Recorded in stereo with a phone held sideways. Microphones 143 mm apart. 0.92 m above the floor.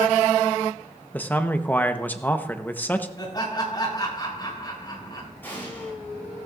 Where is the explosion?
15° left (ahead or behind), 8 m.